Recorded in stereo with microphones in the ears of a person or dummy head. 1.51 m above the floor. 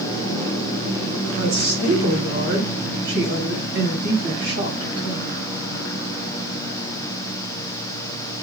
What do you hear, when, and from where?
1.4 s a woman speaking: 60° right (ahead or behind), 8.5 m